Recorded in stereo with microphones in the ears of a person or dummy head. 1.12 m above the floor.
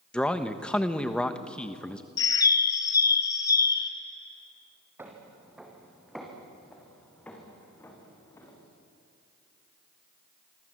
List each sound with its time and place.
0.1 s a man speaking: 5° left (ahead or behind), 1.2 m
2.2 s a bird: 20° left (ahead or behind), 2.5 m
5.0 s footsteps: 10° right (ahead or behind), 3.5 m; by 8.7 s 20° left (ahead or behind), 6 m